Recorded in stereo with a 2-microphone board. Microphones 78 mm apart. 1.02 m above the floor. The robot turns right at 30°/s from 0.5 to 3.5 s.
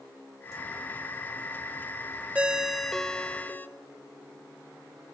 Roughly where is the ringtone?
Ahead.